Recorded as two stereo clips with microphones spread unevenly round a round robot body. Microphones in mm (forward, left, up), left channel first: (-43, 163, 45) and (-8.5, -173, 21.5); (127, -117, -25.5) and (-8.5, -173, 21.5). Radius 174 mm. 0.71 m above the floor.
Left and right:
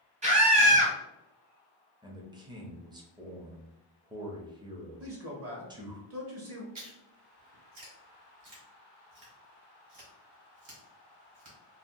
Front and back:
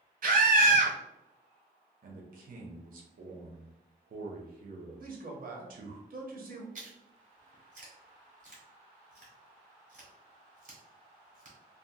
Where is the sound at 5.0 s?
125° right, 1.0 m.